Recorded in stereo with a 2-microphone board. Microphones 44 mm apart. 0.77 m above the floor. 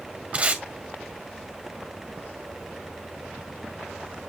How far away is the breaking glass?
I don't hear breaking glass.